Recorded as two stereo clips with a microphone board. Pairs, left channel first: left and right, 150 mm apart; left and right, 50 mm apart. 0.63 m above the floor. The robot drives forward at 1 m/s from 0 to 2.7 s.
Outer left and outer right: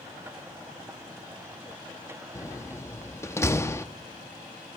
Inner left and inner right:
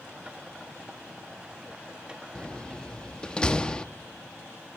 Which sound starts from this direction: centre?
A door slam, at 2.4 s.